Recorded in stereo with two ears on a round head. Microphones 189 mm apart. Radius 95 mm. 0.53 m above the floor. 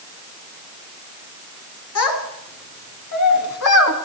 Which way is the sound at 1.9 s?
80° left.